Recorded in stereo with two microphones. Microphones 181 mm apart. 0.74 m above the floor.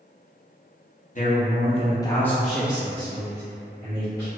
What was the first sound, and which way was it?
A man speaking, 45° left (ahead or behind).